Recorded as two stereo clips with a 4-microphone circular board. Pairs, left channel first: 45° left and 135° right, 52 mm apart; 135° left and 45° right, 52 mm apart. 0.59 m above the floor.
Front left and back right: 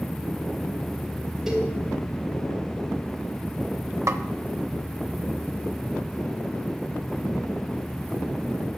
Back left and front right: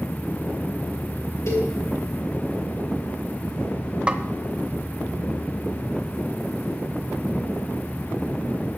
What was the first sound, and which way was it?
A cowbell, 145° left.